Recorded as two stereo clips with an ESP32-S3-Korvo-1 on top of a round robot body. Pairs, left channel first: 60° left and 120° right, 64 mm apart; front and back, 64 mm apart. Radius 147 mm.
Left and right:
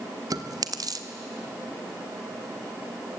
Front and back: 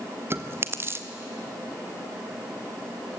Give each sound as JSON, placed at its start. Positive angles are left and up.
{"t": 0.3, "sound": "chewing", "azimuth_deg": -130, "distance_m": 1.7}